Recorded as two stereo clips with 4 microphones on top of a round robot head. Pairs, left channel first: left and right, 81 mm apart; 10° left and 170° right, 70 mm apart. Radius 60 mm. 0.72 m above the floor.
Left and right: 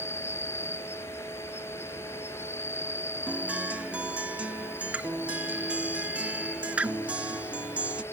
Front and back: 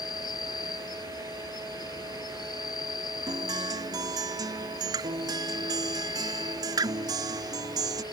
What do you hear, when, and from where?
0.0 s an insect: 30° left
3.3 s a guitar: 165° right